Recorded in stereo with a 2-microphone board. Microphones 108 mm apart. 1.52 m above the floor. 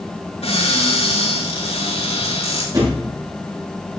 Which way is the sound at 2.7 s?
35° right (ahead or behind).